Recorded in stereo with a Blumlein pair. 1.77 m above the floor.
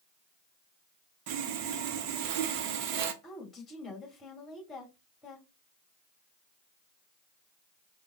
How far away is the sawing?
About 0.6 m.